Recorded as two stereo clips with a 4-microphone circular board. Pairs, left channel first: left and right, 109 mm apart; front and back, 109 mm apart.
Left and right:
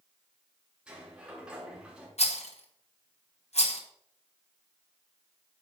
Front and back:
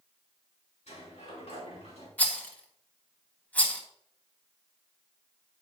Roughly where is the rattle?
Left.